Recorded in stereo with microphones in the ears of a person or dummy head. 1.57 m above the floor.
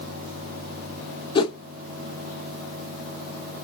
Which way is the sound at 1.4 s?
20° left (ahead or behind).